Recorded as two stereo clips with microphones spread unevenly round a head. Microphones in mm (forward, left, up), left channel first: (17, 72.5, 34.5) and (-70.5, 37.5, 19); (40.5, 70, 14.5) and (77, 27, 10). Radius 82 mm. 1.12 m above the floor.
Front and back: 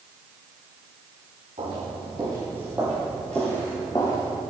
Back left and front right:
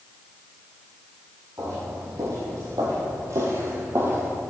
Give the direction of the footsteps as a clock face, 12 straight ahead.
3 o'clock.